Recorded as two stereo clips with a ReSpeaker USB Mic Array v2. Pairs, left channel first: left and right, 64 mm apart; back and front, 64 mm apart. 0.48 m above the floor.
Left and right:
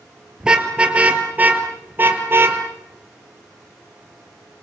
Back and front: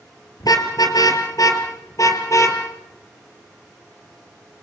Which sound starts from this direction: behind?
A car horn, at 0.4 s.